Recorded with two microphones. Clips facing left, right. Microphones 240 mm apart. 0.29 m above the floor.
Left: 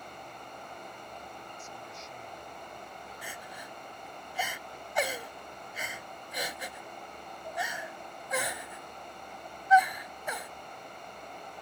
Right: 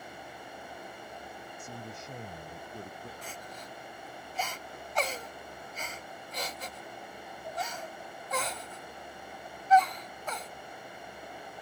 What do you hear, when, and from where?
1.6 s a man speaking: 55° right (ahead or behind)
3.2 s crying: 10° left (ahead or behind)